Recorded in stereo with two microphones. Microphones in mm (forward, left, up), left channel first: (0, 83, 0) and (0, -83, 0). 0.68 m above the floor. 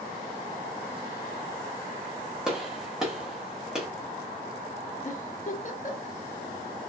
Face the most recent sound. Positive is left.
turn(degrees=50)  # may be behind; listen again after turning